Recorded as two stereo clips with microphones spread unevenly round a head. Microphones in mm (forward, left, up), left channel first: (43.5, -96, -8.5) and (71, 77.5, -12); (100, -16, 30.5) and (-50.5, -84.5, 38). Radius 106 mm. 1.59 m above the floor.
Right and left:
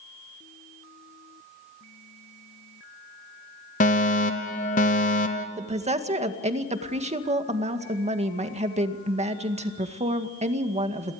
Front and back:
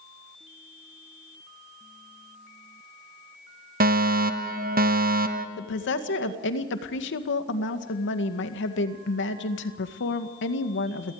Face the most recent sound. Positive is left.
turn(degrees=30)